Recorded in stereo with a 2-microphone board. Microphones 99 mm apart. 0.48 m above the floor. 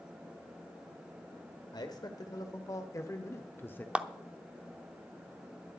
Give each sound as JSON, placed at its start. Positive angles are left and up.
{"t": 1.7, "sound": "a man speaking", "side_deg": 45, "distance_m": 2.0}
{"t": 4.0, "sound": "a clap", "side_deg": -10, "distance_m": 0.6}